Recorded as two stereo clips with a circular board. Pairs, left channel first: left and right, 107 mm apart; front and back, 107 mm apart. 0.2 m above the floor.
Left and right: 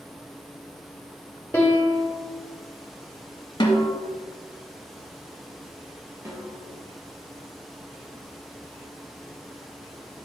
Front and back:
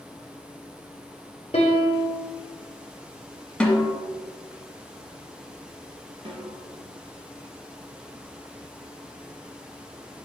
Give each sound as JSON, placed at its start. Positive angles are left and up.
{"t": 1.5, "sound": "a piano", "azimuth_deg": 20, "distance_m": 2.5}
{"t": 3.6, "sound": "a snare drum", "azimuth_deg": 75, "distance_m": 1.6}
{"t": 6.2, "sound": "a snare drum", "azimuth_deg": -150, "distance_m": 3.0}